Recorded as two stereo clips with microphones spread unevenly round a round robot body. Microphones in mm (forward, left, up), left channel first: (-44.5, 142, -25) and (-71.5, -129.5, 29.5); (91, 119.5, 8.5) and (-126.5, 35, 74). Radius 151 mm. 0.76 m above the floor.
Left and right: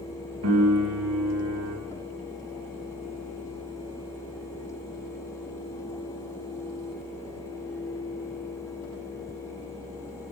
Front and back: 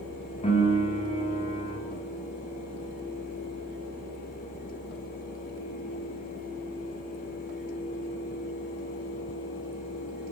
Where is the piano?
45° right, 5.5 m.